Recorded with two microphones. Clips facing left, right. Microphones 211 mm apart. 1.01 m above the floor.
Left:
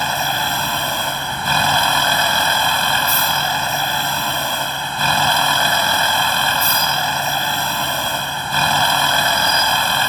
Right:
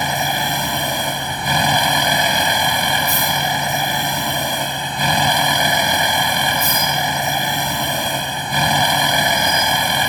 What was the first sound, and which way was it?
A vehicle, 15° right (ahead or behind).